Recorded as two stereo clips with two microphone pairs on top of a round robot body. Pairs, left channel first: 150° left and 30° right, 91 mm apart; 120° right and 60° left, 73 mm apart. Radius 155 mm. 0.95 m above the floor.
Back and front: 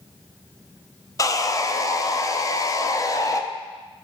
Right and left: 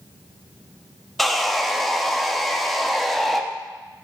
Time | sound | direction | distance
1.2 | sawing | 140° left | 0.9 m